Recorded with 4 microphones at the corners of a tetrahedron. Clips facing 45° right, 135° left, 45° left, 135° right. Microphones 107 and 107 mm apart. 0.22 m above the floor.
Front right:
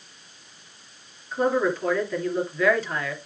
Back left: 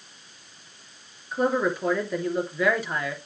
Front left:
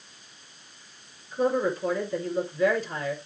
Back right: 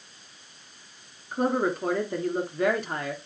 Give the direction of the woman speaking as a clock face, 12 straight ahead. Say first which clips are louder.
Front right 1 dB, even; 5 o'clock.